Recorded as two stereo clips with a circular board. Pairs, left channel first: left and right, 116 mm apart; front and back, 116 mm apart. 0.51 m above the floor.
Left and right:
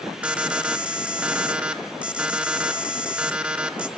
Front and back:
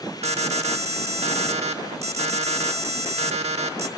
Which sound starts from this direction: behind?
An alarm, at 0.2 s.